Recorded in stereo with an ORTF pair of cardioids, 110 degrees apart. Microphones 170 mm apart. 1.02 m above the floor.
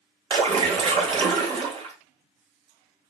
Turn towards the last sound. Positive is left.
turn(degrees=-35)